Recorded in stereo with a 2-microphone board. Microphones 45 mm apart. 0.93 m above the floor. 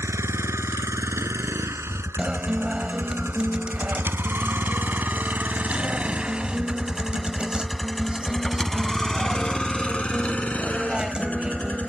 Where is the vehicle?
85° right; by 11.9 s 35° left (ahead or behind).